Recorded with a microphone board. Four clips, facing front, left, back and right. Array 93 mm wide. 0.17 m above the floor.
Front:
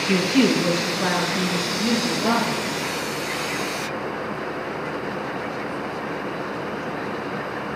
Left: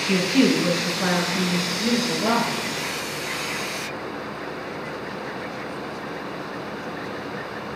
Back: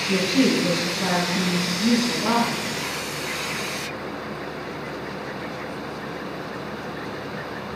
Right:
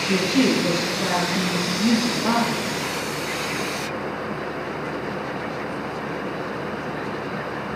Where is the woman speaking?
15° left, 1.4 m; by 2.6 s 60° left, 2.5 m.